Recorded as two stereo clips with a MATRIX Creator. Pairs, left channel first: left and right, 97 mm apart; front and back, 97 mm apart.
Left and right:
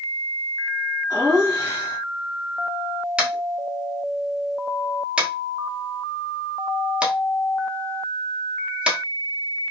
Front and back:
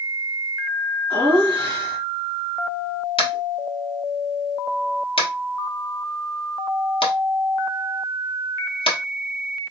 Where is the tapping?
10° right, 1.1 m.